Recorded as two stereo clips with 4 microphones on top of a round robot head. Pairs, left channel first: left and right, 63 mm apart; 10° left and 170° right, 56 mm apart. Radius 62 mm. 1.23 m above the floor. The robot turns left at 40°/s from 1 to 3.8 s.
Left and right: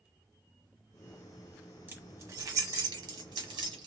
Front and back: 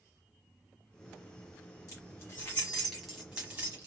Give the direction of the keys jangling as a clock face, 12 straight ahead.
1 o'clock.